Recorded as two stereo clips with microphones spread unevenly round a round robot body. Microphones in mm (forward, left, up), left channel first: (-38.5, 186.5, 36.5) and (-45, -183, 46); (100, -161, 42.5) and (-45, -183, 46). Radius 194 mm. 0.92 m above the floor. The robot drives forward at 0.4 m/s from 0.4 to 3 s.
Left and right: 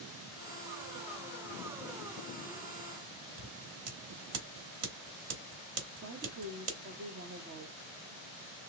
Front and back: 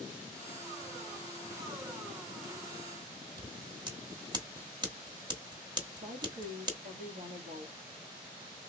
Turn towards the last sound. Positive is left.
turn(degrees=-150)